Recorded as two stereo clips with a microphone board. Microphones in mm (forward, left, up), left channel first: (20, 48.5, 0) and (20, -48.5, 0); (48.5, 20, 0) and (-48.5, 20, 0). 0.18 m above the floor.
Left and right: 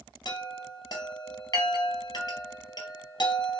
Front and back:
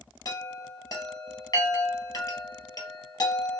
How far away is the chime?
About 1.6 m.